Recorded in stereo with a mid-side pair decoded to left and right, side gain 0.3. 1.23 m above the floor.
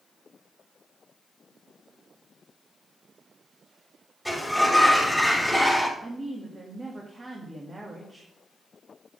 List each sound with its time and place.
4.2 s a sliding door: straight ahead, 4 m
6.0 s a woman speaking: 40° right, 2 m